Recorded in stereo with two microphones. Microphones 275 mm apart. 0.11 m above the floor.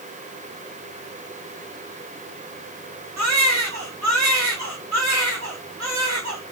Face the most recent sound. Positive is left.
turn(degrees=-75)  # may be behind; listen again after turning